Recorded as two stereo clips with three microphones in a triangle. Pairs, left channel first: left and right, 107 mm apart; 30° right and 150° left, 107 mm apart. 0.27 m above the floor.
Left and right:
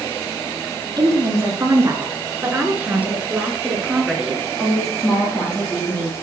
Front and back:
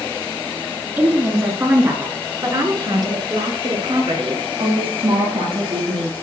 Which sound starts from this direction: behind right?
A woman speaking, at 1.0 s.